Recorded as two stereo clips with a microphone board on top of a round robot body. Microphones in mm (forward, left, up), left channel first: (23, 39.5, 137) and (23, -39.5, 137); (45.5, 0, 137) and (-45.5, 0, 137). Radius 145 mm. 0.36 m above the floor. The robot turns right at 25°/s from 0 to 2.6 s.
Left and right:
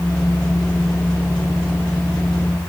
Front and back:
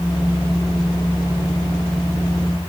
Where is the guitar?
I don't hear a guitar.